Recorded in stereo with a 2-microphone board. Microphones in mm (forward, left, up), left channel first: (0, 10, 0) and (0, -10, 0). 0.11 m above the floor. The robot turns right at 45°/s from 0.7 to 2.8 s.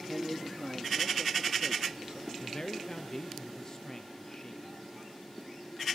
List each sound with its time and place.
0.1 s a man speaking: 160° left, 1.5 m; by 2.3 s 125° right, 1.5 m
2.4 s a man speaking: 40° left (ahead or behind), 2 m; by 4.8 s 30° left (ahead or behind), 2 m